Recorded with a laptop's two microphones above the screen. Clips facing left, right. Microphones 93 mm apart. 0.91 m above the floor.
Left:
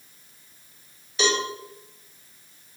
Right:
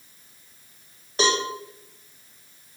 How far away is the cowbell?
About 1.8 m.